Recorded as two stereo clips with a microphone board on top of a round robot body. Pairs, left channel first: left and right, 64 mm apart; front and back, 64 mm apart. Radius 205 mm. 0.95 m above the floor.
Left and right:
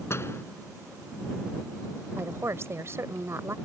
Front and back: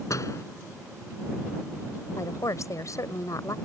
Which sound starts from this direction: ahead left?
A door slam, at 0.1 s.